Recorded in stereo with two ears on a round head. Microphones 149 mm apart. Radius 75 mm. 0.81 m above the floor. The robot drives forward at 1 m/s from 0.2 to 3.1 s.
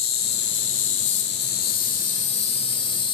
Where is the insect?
60° left (ahead or behind), 1.5 m; by 3.1 s 30° left (ahead or behind), 2.5 m.